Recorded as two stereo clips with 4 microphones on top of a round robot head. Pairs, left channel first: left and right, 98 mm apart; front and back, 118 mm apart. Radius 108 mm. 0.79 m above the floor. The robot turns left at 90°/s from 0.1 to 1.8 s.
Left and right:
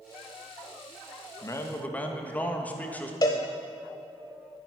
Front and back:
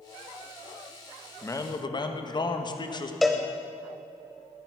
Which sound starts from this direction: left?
A cowbell, at 3.2 s.